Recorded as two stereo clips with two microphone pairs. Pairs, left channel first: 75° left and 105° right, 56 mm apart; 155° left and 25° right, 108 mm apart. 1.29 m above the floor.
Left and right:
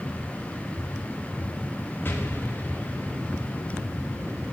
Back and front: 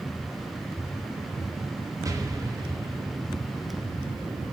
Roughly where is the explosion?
Ahead left.